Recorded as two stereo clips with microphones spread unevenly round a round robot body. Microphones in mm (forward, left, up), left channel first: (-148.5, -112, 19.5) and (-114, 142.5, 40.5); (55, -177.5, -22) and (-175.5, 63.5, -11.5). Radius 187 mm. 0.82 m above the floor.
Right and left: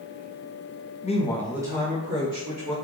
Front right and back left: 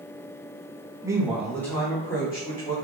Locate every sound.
1.0 s a woman speaking: 145° right, 1.0 m; by 2.7 s 30° left, 1.8 m